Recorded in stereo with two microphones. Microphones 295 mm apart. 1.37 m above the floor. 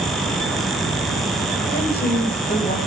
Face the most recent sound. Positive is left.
turn(degrees=25)  # may be behind; listen again after turning